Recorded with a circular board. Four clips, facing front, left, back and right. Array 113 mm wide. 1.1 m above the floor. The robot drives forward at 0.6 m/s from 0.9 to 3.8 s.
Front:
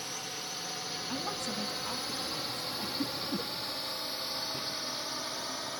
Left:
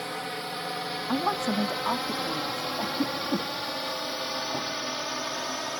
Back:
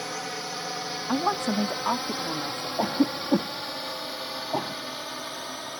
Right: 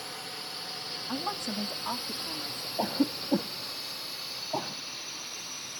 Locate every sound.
0.0 s a drone: 140° left; by 5.8 s 100° left
1.1 s a woman speaking: 155° left; by 2.7 s 165° left
2.8 s a cough: 165° right